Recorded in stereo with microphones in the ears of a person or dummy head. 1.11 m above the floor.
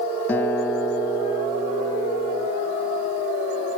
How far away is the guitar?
About 0.7 m.